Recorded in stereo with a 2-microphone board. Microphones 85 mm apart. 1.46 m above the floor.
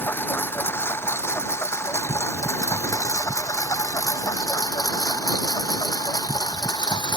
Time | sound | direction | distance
0.0 | a lawn mower | 25° left (ahead or behind) | ?